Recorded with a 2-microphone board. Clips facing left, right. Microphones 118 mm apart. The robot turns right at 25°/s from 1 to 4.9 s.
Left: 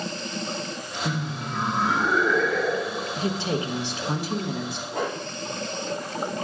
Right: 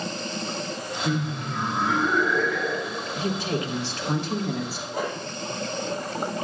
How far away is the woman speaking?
About 0.8 m.